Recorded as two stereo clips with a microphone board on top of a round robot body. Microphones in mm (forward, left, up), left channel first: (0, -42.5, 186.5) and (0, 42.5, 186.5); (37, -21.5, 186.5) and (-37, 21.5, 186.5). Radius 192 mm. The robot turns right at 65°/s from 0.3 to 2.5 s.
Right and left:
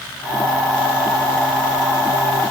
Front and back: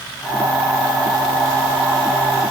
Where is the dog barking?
No dog barking in this recording.